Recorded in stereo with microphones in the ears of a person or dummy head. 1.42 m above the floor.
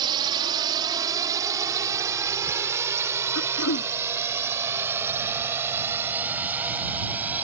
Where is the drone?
20° right (ahead or behind); by 7.4 s 5° right (ahead or behind).